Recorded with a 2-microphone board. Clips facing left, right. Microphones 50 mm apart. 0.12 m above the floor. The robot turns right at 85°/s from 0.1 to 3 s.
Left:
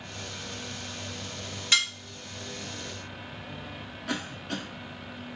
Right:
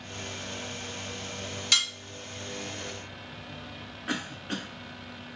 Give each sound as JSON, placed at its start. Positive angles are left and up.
{"t": 1.7, "sound": "dishes clattering", "side_deg": 20, "distance_m": 1.5}
{"t": 4.1, "sound": "a cough", "side_deg": -20, "distance_m": 1.1}